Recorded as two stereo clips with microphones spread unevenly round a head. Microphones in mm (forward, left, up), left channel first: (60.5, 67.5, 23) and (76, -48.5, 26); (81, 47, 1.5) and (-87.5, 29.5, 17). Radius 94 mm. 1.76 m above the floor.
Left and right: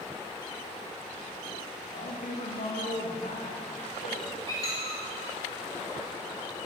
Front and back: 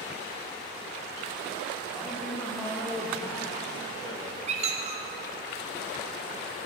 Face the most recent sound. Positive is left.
turn(degrees=160)